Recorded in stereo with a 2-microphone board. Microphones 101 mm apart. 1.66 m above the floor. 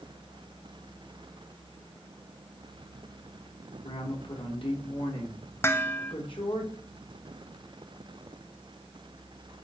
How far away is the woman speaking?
About 4 m.